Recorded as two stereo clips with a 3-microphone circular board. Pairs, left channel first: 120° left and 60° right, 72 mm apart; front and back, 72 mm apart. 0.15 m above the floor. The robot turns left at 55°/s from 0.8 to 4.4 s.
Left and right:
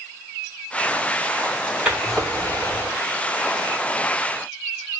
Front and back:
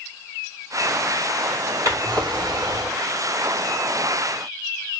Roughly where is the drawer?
Behind right.